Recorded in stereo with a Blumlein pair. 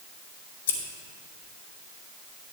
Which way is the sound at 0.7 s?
60° left.